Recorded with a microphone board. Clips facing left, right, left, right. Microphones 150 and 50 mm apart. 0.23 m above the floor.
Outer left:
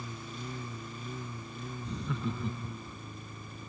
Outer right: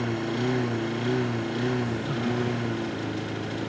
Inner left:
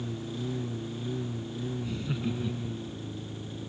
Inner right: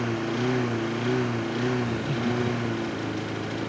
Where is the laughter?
5° right (ahead or behind).